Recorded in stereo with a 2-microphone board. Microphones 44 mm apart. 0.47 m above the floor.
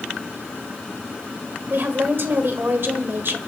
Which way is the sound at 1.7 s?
55° right (ahead or behind).